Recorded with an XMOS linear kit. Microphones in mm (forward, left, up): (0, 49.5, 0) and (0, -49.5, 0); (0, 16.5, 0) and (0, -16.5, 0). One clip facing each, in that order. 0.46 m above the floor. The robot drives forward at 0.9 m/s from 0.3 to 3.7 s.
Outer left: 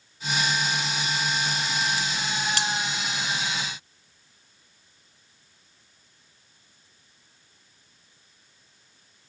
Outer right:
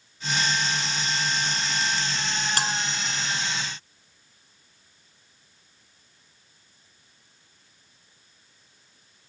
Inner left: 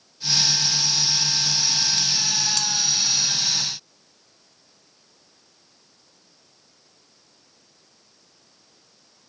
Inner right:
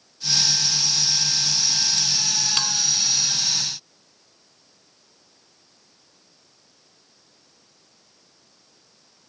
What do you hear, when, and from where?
2.6 s a bell: 45° right (ahead or behind)